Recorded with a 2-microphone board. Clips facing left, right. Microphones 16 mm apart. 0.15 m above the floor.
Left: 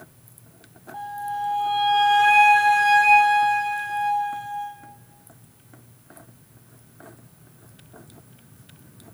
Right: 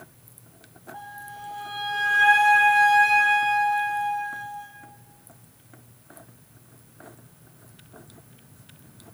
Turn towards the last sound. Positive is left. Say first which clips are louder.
# left 11 dB
turn(degrees=20)  # may be behind; listen again after turning